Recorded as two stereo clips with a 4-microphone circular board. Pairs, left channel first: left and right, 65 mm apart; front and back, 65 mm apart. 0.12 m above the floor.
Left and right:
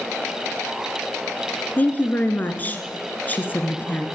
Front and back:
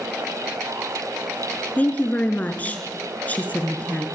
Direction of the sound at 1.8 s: 50° left.